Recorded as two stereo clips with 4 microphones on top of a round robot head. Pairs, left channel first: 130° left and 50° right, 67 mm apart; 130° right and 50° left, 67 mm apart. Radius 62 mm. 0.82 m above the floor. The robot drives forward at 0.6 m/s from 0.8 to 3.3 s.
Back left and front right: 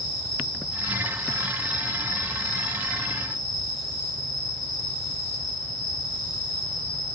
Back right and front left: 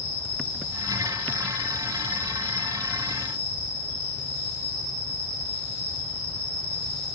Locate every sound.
0.0 s an insect: 160° left, 4.5 m; by 7.2 s 165° left, 6 m